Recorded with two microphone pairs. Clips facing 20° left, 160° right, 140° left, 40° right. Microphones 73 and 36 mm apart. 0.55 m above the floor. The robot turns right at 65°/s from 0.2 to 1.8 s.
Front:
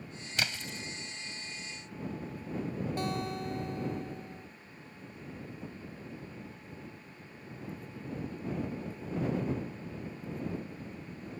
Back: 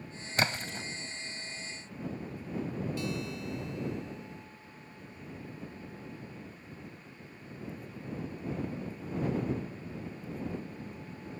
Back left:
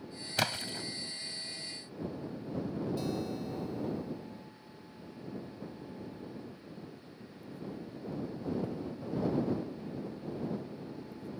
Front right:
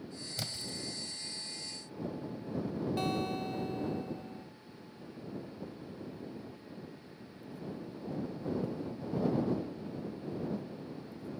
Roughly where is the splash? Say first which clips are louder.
Back 5 dB, back left 9 dB; behind left.